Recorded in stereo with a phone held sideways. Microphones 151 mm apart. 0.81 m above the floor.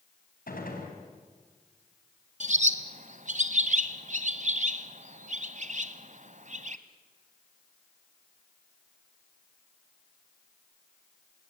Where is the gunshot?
75° left (ahead or behind), 4.5 m.